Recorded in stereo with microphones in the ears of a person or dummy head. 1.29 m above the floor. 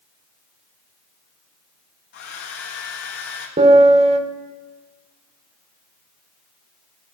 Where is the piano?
40° right (ahead or behind), 1.2 m.